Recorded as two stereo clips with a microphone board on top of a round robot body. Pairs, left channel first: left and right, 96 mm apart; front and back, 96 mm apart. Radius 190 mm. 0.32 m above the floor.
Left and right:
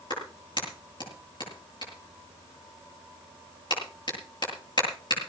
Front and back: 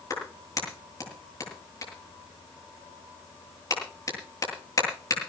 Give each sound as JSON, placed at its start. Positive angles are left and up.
{"t": 0.1, "sound": "a clap", "azimuth_deg": 55, "distance_m": 8.5}